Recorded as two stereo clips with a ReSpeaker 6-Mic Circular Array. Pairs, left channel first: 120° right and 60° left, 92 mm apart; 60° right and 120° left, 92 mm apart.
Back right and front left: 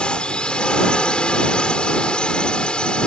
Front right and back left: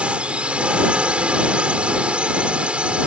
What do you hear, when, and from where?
0.0 s a drone: 175° left